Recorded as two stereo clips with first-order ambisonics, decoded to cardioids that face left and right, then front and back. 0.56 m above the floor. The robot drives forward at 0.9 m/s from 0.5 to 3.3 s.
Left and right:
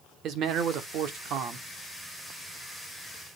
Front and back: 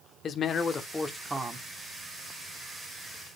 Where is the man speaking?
55° right, 1.2 m; by 1.6 s 120° right, 1.1 m.